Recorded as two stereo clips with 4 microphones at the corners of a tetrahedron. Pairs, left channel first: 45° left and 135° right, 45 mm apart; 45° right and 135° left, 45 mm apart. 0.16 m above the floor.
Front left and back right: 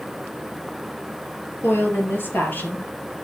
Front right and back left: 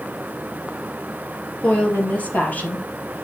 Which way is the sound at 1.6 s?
15° left.